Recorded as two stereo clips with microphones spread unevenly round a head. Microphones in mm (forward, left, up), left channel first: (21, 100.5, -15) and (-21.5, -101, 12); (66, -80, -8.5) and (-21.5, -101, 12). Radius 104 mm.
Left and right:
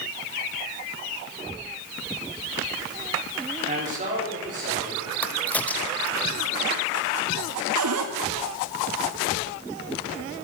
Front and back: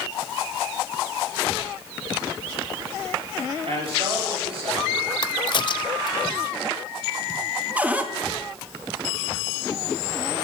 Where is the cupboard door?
85° right, 1.0 m.